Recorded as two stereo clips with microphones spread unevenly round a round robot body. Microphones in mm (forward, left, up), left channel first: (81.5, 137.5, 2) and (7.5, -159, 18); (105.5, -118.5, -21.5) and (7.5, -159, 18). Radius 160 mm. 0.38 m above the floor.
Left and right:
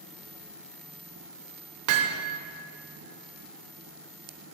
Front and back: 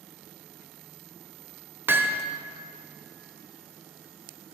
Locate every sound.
1.9 s hammering: 75° right, 0.6 m